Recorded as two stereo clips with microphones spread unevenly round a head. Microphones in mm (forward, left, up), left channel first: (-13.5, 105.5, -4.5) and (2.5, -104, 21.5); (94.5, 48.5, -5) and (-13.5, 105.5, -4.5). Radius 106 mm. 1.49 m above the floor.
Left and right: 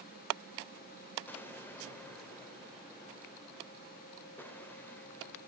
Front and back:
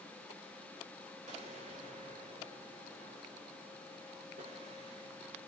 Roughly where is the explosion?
Behind.